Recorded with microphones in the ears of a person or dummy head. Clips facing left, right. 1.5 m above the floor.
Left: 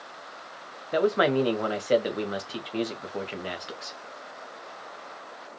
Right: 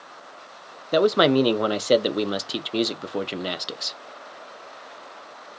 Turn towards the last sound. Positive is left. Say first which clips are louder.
# right 5 dB
turn(degrees=-50)  # may be behind; listen again after turning